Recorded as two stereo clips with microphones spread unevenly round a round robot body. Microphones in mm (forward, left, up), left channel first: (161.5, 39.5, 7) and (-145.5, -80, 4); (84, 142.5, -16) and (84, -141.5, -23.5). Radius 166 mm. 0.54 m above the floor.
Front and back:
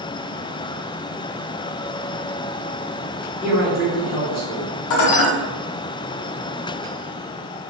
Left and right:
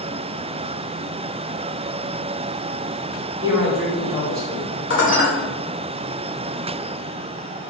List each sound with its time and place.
3.4 s a man speaking: 70° right, 1.4 m
4.9 s dishes clattering: 45° left, 1.2 m